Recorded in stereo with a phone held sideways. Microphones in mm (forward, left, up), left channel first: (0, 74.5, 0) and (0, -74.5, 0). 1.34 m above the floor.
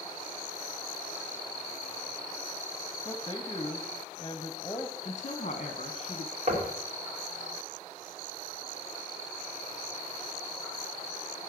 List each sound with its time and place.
3.0 s a man speaking: 20° left (ahead or behind), 0.8 m
5.0 s a woman speaking: 50° left (ahead or behind), 1.1 m
6.5 s knocking: 50° right (ahead or behind), 2.5 m